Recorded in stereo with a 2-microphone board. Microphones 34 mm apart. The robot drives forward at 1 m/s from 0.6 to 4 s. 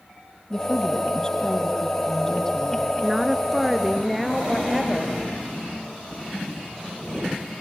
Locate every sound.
0.5 s a woman speaking: 25° left (ahead or behind), 4 m; by 2.9 s 15° left (ahead or behind), 6 m
3.0 s a woman speaking: 5° right (ahead or behind), 1.5 m; by 5.2 s centre (ahead or behind), 2.5 m